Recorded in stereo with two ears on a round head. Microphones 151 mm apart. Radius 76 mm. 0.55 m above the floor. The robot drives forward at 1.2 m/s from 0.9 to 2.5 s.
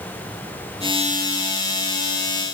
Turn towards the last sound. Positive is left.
No sound to turn to.